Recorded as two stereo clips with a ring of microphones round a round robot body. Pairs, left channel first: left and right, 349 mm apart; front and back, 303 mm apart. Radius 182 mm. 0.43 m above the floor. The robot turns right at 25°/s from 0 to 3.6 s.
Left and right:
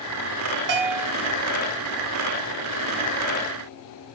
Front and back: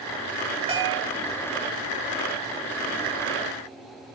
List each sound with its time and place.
0.7 s a bell: 110° right, 0.8 m; by 1.1 s 100° right, 0.8 m